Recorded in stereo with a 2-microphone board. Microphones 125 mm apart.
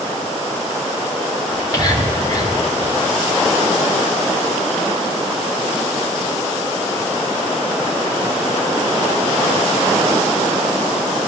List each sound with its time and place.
1.5 s whispering: 35° left (ahead or behind), 2.5 m